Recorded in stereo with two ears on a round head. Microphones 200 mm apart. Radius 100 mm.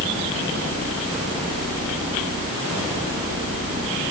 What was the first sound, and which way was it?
Only background noise.